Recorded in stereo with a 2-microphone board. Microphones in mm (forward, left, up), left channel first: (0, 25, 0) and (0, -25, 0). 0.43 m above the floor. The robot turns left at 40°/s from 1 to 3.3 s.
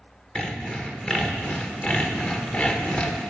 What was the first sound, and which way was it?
Sawing, 145° left.